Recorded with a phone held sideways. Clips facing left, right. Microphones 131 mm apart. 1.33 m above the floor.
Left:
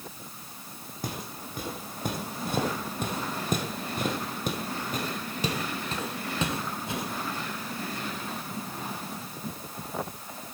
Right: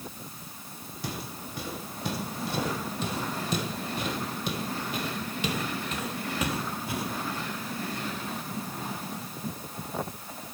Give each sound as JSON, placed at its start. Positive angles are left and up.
{"t": 1.0, "sound": "footsteps", "side_deg": 45, "distance_m": 3.0}